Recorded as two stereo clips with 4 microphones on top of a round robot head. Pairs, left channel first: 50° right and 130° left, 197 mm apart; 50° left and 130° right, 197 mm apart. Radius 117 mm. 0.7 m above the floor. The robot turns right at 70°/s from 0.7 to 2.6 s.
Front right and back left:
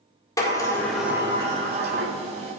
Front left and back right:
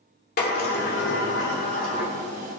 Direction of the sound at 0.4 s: 20° left.